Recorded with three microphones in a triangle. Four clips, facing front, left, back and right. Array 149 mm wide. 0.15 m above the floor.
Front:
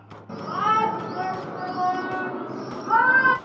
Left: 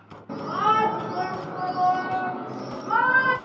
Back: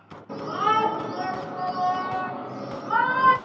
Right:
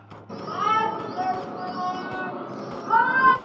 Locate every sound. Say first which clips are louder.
0.3 s a shout: left 2 dB, even; 65° left, 1.9 m; by 3.4 s 30° right, 1.8 m